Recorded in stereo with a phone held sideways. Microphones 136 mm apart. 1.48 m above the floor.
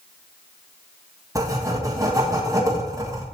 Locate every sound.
1.4 s writing: 25° right (ahead or behind), 1.5 m